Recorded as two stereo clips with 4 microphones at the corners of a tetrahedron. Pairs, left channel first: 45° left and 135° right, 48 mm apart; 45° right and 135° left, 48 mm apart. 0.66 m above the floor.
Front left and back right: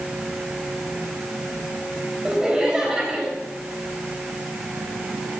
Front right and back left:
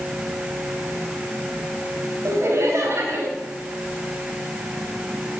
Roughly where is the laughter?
Behind left.